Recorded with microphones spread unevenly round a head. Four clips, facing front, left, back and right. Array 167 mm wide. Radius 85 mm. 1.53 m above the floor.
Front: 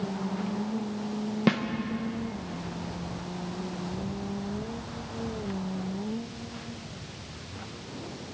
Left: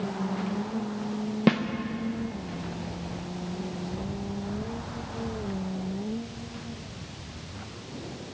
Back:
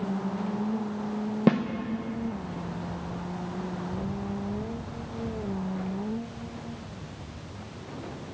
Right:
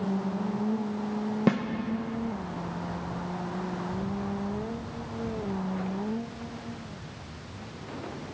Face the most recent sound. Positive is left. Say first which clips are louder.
# left 2 dB, back 3 dB
turn(degrees=170)